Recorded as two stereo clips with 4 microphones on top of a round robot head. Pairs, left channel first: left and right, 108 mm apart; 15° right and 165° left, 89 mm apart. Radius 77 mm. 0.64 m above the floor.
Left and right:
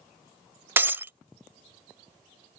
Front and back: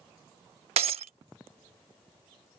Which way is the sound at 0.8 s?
155° right.